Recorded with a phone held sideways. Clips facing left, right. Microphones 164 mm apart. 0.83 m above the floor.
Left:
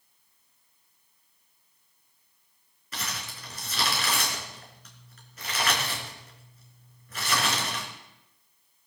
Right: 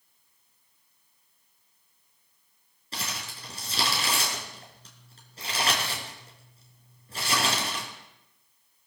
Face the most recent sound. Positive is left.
turn(degrees=-30)  # may be behind; listen again after turning